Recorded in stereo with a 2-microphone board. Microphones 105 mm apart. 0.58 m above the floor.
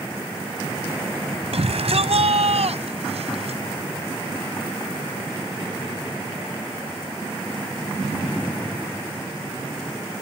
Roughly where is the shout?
Right.